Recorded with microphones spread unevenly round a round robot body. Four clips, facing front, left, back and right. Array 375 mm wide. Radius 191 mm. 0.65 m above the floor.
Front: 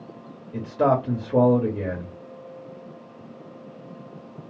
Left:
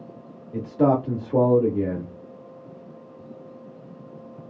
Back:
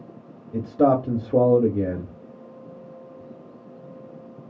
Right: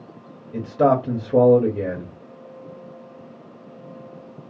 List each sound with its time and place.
0.5 s a man speaking: 160° right, 0.7 m